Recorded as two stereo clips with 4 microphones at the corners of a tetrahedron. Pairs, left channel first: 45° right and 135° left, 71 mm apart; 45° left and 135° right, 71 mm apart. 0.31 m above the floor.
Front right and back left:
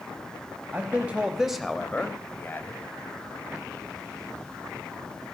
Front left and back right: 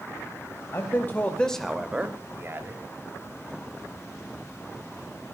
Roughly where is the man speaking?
Left.